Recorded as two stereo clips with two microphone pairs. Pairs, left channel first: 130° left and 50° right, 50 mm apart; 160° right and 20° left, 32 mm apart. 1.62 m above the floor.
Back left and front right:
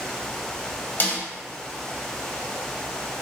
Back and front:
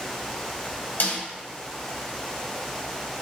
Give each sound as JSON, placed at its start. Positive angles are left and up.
{"t": 1.0, "sound": "a snare drum", "azimuth_deg": 180, "distance_m": 0.7}